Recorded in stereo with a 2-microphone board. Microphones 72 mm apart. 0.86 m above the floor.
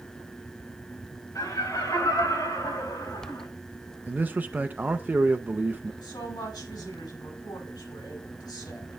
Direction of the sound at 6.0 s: 75° left (ahead or behind).